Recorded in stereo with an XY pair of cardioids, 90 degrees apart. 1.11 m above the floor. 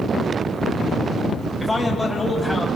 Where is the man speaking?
5° left, 6 m; by 2.7 s straight ahead, 7.5 m.